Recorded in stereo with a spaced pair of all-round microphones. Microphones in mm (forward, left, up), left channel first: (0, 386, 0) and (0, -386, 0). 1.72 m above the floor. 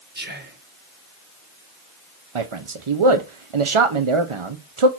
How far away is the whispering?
About 1.6 m.